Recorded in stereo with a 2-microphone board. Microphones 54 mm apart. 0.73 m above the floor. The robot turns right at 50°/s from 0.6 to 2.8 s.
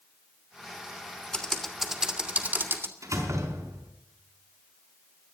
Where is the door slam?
85° right, 4.5 m.